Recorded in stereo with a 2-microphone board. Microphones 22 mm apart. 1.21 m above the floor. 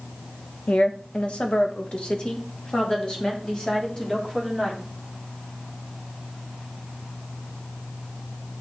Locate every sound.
0.7 s a woman speaking: 70° left (ahead or behind), 1.4 m; by 4.8 s 30° left (ahead or behind), 4 m